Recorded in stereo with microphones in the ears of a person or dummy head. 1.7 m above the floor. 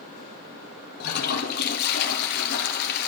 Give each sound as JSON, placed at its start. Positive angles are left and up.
{"t": 1.0, "sound": "a toilet flushing", "side_deg": 55, "distance_m": 1.0}